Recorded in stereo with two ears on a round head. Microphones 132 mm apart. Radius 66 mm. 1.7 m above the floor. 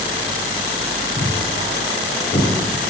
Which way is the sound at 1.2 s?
50° left (ahead or behind).